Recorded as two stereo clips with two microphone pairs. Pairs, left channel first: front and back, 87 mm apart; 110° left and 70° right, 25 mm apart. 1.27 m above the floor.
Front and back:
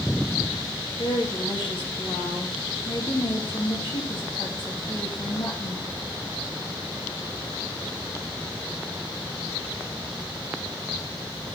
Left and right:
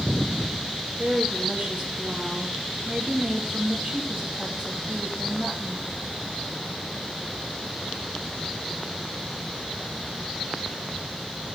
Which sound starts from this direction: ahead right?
A woman speaking, at 1.0 s.